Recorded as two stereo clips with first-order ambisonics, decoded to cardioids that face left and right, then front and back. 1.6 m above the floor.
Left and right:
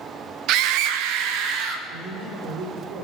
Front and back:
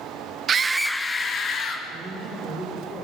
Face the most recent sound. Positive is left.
turn(degrees=-65)